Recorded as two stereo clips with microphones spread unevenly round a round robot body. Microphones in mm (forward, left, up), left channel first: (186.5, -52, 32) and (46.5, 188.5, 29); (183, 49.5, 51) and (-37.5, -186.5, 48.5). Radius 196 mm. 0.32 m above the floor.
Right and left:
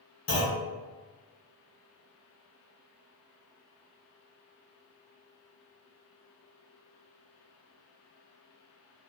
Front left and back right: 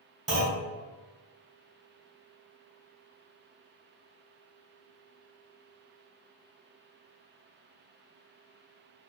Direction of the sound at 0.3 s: 70° right.